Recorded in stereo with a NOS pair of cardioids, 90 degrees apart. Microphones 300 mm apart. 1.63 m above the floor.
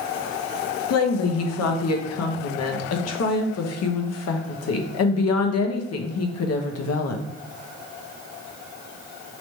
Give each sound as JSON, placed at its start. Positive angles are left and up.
{"t": 0.9, "sound": "a woman speaking", "azimuth_deg": 55, "distance_m": 1.0}